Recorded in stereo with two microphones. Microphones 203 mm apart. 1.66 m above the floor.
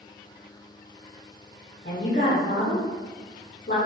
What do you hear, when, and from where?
1.9 s a woman speaking: 45° left (ahead or behind), 0.6 m